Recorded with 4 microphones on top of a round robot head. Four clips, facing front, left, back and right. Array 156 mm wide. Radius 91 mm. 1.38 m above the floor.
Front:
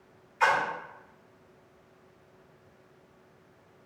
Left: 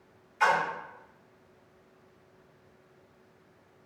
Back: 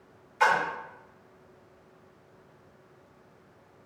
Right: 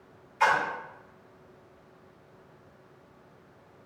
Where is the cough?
I don't hear a cough.